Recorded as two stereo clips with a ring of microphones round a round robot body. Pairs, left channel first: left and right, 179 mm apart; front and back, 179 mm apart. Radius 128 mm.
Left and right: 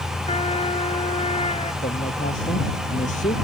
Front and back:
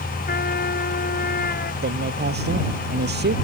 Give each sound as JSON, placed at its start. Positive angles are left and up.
{"t": 0.3, "sound": "a trumpet", "azimuth_deg": 35}
{"t": 1.8, "sound": "a man speaking", "azimuth_deg": 155}